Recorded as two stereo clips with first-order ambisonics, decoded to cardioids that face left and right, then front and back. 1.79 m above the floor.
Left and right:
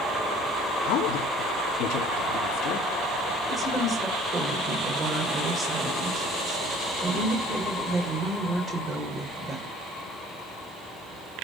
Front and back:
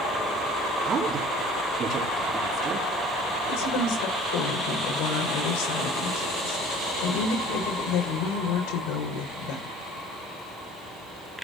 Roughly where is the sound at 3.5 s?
Ahead.